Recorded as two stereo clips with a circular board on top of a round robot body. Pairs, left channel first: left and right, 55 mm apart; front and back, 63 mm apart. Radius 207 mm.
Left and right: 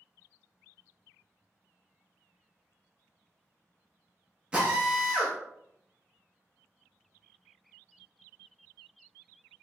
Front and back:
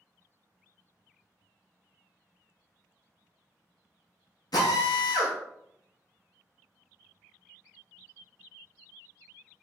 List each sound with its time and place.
4.5 s a drill: 20° right, 0.8 m